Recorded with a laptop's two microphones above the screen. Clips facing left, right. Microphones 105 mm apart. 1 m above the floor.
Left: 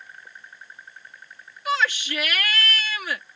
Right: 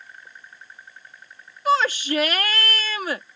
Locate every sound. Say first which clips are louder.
1.6 s a shout: right 5 dB; 40° right (ahead or behind)